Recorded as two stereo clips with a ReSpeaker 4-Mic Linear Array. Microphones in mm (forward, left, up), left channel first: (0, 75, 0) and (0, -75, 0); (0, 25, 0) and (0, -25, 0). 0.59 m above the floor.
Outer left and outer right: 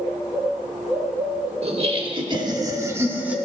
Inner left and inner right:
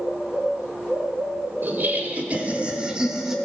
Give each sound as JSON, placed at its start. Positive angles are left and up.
{"t": 1.6, "sound": "laughter", "side_deg": -45, "distance_m": 1.4}